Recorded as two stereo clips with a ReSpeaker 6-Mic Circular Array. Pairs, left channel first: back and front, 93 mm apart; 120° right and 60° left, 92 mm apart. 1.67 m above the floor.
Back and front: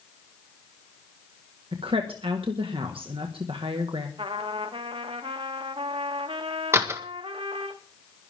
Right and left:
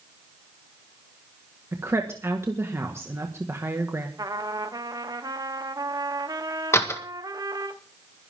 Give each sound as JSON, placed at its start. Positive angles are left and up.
{"t": 1.7, "sound": "a woman speaking", "azimuth_deg": 0, "distance_m": 1.7}
{"t": 4.2, "sound": "a trumpet", "azimuth_deg": 10, "distance_m": 1.3}
{"t": 6.7, "sound": "a door slam", "azimuth_deg": -60, "distance_m": 1.6}